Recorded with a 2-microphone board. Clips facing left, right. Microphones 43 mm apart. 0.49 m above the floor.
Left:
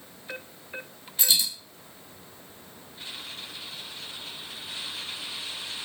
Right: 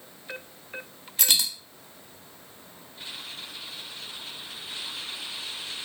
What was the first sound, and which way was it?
A dropped coin, 60° right (ahead or behind).